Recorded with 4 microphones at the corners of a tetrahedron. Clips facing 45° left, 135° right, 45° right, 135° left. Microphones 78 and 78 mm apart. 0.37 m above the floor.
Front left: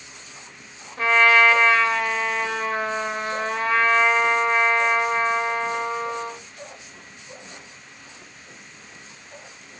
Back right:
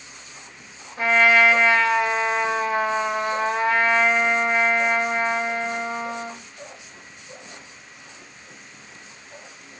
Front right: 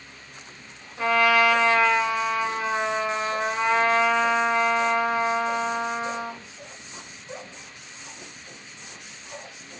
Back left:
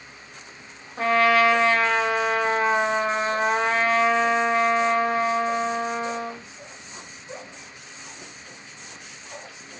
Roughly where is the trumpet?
Behind left.